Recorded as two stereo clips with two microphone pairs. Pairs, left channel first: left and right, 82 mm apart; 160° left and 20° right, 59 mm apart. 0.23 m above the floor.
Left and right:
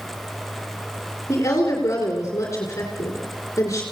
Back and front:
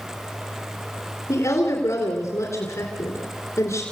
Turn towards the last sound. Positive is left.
turn(degrees=135)